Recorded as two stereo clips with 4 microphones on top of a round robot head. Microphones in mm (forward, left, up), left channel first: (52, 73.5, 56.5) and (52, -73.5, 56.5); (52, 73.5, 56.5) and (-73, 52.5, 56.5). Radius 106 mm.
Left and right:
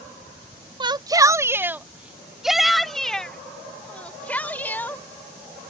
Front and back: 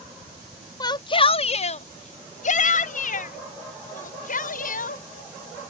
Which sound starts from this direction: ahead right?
A shout, at 0.8 s.